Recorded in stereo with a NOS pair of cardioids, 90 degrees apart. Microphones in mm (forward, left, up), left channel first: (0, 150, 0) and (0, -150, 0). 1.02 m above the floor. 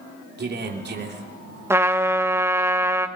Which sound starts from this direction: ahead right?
A man speaking, at 0.4 s.